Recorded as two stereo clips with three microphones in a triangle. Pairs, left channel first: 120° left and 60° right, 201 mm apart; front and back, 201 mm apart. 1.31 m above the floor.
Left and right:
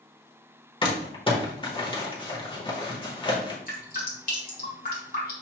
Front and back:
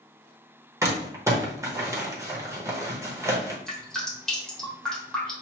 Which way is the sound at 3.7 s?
85° left.